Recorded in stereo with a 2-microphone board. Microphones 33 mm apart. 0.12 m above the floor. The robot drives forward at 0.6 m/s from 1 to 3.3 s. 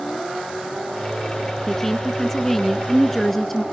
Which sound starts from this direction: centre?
A woman speaking, at 1.7 s.